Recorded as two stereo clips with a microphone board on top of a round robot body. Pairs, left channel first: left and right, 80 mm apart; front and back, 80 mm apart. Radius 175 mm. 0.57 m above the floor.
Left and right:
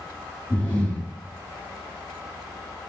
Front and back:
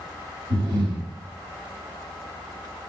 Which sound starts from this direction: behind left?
Breathing, at 0.5 s.